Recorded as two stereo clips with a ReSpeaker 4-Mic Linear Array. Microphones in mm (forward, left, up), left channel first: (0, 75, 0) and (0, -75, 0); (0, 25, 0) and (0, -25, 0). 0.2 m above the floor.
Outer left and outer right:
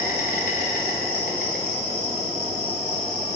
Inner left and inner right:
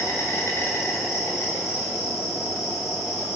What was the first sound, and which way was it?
An insect, 75° left (ahead or behind).